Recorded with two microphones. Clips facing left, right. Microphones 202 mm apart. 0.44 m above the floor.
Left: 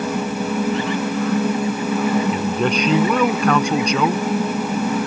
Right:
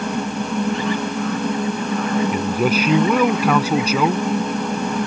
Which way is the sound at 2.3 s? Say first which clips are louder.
Right 1 dB; 5° right (ahead or behind).